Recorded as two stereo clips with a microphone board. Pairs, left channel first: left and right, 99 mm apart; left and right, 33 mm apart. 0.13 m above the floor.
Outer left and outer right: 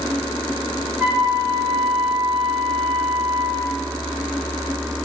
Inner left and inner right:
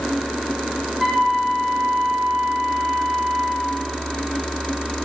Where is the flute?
20° right (ahead or behind), 7 m.